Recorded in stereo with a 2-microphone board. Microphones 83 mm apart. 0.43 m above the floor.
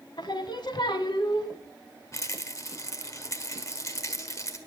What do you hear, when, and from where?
0.2 s singing: 70° left (ahead or behind), 1.2 m
2.1 s a rattle: 40° left (ahead or behind), 1.4 m